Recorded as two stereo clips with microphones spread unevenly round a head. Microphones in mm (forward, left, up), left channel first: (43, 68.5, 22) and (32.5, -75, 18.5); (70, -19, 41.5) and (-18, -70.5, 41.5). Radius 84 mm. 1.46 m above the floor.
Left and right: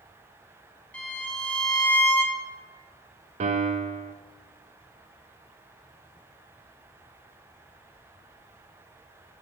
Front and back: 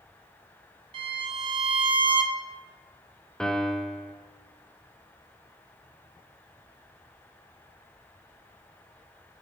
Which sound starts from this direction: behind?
A violin, at 0.9 s.